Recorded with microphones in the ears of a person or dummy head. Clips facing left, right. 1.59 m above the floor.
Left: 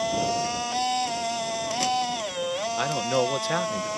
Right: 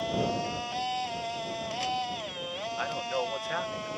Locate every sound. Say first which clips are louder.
0.0 s a machine running: left 4 dB; 65° left (ahead or behind)
2.8 s a man speaking: left 7 dB; 55° left (ahead or behind)